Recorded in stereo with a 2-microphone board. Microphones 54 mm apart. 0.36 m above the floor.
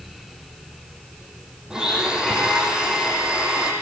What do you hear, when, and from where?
1.7 s a blender: 10° right (ahead or behind), 9.5 m